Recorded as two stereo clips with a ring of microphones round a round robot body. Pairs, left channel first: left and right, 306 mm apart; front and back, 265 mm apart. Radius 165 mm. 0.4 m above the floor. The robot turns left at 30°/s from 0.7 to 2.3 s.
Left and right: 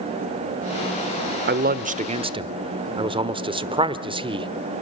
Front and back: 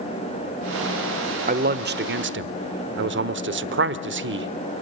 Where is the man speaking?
135° right, 1.2 m; by 4.5 s 160° right, 1.2 m.